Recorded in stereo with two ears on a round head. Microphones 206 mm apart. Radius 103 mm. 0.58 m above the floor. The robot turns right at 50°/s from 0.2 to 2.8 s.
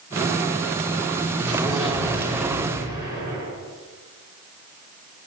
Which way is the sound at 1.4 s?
85° right.